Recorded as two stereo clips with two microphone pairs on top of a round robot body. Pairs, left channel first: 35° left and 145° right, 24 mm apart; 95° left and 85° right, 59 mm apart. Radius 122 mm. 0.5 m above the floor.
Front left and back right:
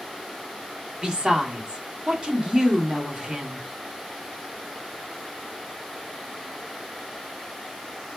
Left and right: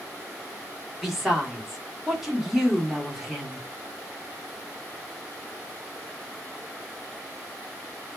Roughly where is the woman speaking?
Behind.